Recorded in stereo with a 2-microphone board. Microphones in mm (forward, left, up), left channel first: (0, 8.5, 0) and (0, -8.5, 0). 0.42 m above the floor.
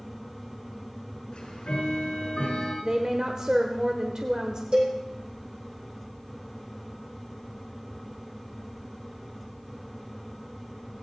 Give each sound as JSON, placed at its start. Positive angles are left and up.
{"t": 1.3, "sound": "ticking", "side_deg": 65, "distance_m": 6.0}
{"t": 2.8, "sound": "a woman speaking", "side_deg": -40, "distance_m": 1.4}
{"t": 4.7, "sound": "a cowbell", "side_deg": -70, "distance_m": 7.5}